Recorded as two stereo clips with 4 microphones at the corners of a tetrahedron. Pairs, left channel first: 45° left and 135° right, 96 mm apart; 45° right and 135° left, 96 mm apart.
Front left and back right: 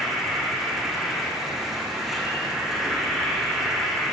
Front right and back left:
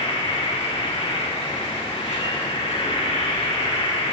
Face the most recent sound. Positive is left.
turn(degrees=-50)